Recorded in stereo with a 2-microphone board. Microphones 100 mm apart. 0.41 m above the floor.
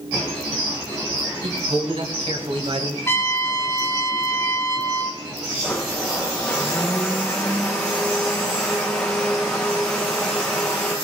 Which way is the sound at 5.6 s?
5° left (ahead or behind).